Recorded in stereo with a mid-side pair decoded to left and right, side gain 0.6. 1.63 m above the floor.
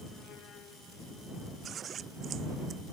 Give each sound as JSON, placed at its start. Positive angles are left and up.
{"t": 1.6, "sound": "scissors", "azimuth_deg": -45}